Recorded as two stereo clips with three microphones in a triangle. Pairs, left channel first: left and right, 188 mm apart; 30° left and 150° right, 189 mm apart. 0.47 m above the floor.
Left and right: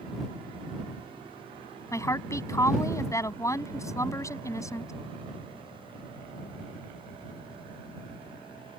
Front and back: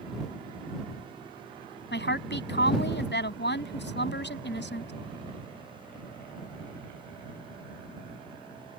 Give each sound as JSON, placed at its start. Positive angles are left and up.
{"t": 1.9, "sound": "a woman speaking", "azimuth_deg": 15}